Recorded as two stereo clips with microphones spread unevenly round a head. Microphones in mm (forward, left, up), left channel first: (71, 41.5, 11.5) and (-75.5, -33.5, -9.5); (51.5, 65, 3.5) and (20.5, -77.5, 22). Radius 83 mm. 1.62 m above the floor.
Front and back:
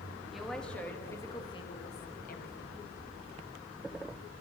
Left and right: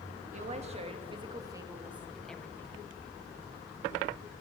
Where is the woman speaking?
60° right, 2.5 m; by 2.8 s 5° left, 1.7 m.